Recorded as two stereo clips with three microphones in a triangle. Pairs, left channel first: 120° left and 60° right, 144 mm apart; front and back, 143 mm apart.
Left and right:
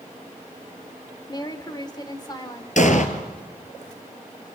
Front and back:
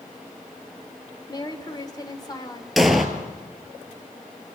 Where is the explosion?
90° left, 2.5 m.